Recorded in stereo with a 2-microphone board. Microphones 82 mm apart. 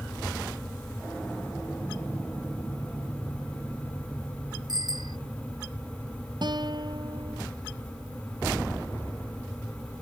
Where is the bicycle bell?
60° right (ahead or behind).